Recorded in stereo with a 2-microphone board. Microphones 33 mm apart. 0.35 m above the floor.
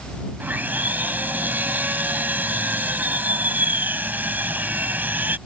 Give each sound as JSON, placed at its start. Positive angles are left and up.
{"t": 0.4, "sound": "sawing", "side_deg": -60}